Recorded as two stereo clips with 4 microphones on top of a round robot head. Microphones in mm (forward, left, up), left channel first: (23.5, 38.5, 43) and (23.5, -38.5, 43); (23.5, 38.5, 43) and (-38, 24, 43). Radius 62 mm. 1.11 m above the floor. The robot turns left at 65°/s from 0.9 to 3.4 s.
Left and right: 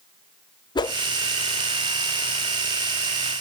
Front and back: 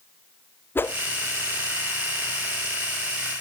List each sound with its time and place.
0.8 s a whoosh: 70° left, 0.6 m; by 1.0 s 65° left, 0.6 m